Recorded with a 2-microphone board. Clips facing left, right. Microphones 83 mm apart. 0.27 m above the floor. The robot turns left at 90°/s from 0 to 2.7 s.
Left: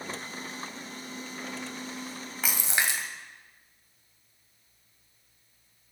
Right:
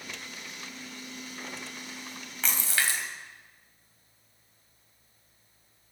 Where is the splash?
5° left (ahead or behind), 1.8 m; by 3.0 s 20° left (ahead or behind), 1.8 m.